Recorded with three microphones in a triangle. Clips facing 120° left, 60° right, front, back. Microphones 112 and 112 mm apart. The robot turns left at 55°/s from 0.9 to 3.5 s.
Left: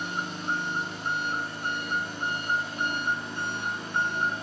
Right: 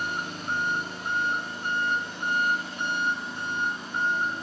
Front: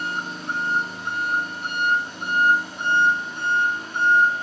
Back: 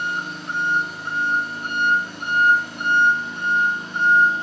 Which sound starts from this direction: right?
An engine running, at 0.0 s.